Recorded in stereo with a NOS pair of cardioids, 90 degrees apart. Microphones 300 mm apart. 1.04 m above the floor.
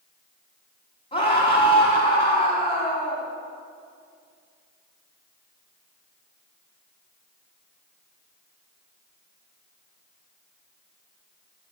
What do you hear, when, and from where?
1.1 s a scream: 20° left, 4.5 m